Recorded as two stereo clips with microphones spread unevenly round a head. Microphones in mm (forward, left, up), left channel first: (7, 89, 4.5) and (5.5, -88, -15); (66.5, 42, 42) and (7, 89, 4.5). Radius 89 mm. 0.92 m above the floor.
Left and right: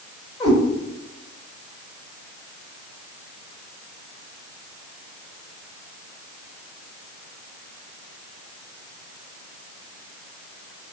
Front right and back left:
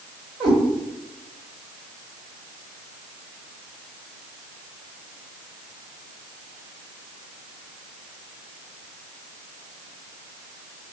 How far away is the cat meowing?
About 1.8 m.